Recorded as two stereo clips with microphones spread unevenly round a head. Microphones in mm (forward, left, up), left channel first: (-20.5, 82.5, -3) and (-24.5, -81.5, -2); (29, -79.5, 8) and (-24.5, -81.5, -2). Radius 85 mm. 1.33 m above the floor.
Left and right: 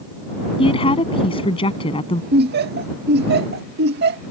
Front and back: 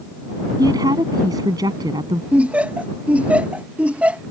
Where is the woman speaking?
145° left.